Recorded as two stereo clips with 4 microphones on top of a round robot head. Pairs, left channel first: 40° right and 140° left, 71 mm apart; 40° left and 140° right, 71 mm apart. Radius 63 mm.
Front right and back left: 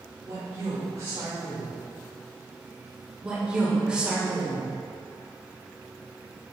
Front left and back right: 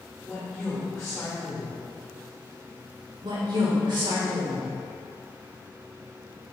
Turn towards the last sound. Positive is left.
turn(degrees=-145)